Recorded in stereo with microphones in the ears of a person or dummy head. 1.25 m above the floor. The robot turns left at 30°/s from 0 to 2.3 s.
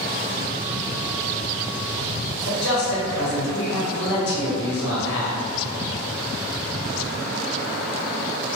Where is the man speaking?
55° left (ahead or behind), 1.0 m.